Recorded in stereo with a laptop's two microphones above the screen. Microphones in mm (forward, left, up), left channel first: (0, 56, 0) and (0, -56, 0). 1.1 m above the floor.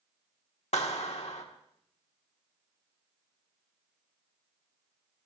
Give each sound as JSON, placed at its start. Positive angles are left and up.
{"t": 0.7, "sound": "a clap", "side_deg": 80, "distance_m": 1.8}